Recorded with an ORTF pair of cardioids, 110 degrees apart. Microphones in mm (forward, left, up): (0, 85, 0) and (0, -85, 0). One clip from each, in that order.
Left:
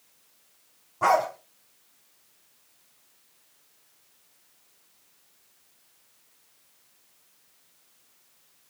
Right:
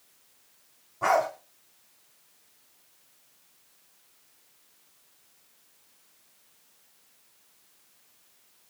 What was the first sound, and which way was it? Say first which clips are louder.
A dog barking: left 2 dB; 35° left.